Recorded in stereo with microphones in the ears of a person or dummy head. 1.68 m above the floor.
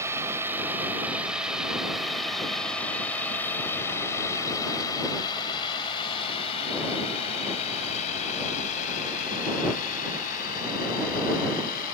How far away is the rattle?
I don't hear a rattle.